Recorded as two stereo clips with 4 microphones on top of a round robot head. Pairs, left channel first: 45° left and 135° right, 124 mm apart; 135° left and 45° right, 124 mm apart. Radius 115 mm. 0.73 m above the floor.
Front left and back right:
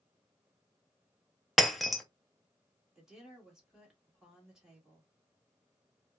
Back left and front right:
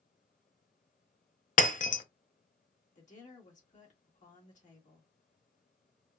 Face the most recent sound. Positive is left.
turn(degrees=140)